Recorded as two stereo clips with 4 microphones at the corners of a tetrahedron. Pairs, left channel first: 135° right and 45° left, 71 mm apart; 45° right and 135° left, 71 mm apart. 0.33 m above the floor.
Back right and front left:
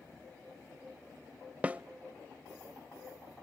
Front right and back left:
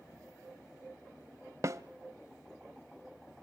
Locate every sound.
1.6 s a snare drum: 110° left, 0.8 m